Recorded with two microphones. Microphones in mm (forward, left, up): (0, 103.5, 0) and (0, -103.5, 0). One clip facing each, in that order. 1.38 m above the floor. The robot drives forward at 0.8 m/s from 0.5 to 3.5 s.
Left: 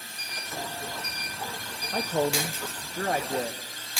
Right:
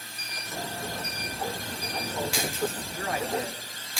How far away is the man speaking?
About 0.9 m.